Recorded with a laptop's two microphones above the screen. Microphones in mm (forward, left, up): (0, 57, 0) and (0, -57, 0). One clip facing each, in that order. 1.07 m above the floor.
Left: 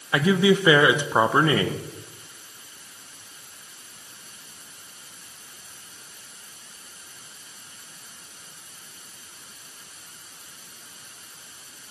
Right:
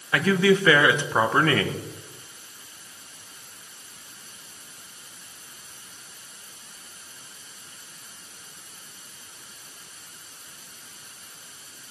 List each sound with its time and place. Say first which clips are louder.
0.1 s a man speaking: left 1 dB; 15° left (ahead or behind), 0.7 m